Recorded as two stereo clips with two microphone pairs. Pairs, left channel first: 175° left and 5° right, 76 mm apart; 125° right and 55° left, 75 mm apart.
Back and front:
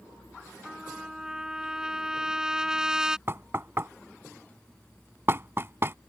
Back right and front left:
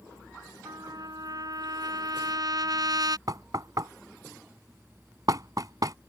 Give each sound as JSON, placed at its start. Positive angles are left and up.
{"t": 0.7, "sound": "a trumpet", "azimuth_deg": 70}
{"t": 3.3, "sound": "knocking", "azimuth_deg": 40}